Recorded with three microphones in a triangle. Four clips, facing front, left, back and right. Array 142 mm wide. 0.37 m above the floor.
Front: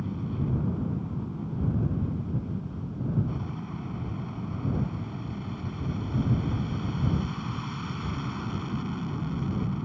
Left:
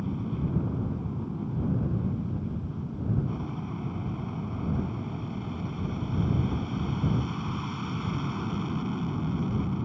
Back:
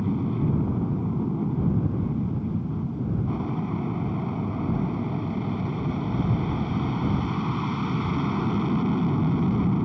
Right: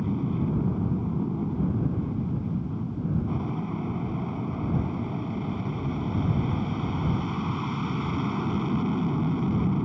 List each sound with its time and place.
0.0 s an aircraft: 150° right